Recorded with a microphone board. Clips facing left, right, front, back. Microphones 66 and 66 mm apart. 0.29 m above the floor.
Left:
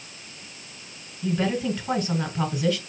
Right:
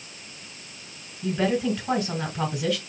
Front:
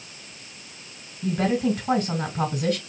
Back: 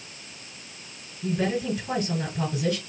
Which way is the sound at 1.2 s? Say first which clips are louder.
Right 1 dB, front 3 dB; straight ahead.